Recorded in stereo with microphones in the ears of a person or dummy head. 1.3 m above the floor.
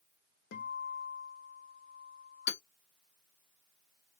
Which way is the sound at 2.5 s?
60° left (ahead or behind).